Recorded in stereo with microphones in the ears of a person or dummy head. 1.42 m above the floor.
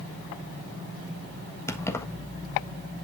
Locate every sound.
1.7 s keys jangling: 25° left (ahead or behind), 1.3 m